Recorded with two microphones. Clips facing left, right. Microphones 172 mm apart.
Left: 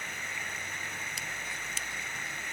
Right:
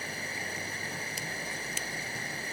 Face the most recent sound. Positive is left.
turn(degrees=-35)  # may be behind; listen again after turning